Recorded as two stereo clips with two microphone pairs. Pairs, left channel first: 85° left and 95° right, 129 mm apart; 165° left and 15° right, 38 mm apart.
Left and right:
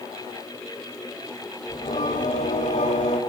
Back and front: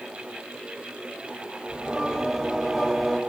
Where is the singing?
70° left, 2 m.